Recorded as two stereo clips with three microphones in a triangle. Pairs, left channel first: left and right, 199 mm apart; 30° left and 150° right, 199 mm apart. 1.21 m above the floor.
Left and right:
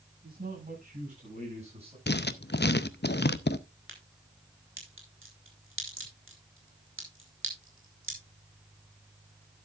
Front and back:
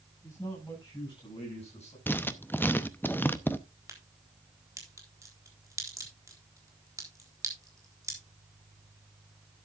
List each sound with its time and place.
0.2 s a man speaking: 45° right, 7.5 m; by 2.0 s 30° right, 7.5 m
2.1 s writing: 105° left, 0.7 m
3.9 s a crack: 75° right, 4 m